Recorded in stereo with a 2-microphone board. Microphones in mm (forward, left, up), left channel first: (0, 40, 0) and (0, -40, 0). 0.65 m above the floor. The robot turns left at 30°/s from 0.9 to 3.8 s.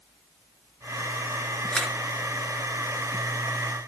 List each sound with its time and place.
1.7 s a camera shutter: 10° left (ahead or behind), 5 m; by 1.9 s 5° left (ahead or behind), 5 m